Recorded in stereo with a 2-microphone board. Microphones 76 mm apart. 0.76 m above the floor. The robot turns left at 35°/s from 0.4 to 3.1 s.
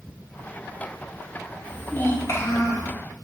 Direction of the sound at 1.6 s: 160° left.